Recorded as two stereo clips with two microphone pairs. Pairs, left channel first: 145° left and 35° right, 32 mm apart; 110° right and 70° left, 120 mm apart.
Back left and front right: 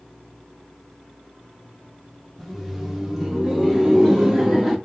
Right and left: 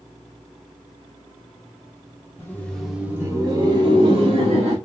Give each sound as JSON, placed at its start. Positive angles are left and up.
{"t": 2.4, "sound": "laughter", "azimuth_deg": -110, "distance_m": 0.9}